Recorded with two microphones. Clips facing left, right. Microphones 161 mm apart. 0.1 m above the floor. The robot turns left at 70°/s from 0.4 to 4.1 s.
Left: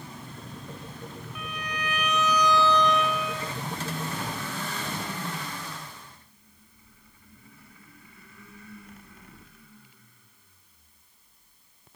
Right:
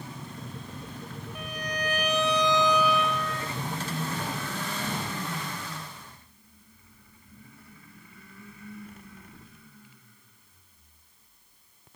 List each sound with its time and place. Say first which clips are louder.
1.4 s a violin: right 3 dB; 65° right, 0.9 m; by 3.6 s 145° left, 0.9 m